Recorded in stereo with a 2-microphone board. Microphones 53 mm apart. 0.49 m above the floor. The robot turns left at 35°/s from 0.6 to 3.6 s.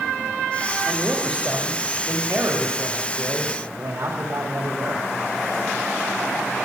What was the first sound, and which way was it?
A man speaking, 5° left.